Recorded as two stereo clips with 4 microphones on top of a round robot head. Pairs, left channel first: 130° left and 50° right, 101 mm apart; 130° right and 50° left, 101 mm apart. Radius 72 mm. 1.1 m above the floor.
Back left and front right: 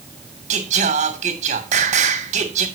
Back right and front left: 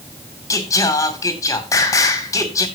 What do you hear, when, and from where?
0.5 s singing: 70° right, 2.5 m